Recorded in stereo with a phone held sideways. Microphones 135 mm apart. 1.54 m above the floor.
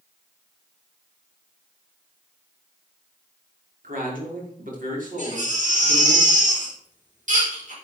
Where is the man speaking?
85° right, 5 m.